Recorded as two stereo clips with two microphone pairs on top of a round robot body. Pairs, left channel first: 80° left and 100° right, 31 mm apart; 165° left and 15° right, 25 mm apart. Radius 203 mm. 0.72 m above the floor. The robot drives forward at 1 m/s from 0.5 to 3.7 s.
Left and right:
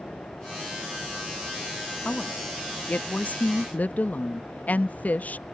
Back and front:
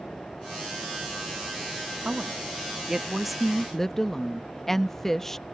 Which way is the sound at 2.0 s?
35° left.